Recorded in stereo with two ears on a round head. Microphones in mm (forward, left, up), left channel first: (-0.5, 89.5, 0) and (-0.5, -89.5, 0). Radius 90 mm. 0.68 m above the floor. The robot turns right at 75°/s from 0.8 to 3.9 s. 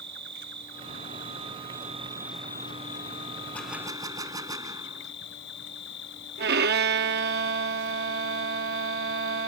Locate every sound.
0.0 s an insect: 120° right; by 9.5 s 115° left
3.5 s a gunshot: 10° left (ahead or behind); by 5.1 s 20° right (ahead or behind)
6.4 s a violin: 50° right (ahead or behind)